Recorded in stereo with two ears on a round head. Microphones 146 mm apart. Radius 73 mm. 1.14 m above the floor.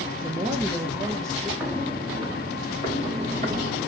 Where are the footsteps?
5° right (ahead or behind), 1.6 m; by 3.9 s 50° right (ahead or behind), 2.5 m.